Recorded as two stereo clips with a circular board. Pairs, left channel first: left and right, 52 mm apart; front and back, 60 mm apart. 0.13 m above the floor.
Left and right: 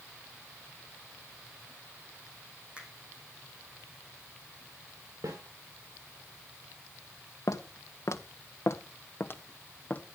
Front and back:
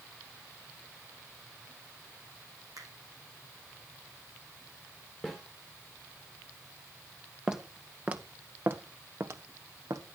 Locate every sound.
2.8 s a finger snap: 155° right, 5 m
5.2 s a snare drum: 95° right, 4 m
7.5 s footsteps: 100° left, 1.5 m; by 10.0 s 150° left, 1.7 m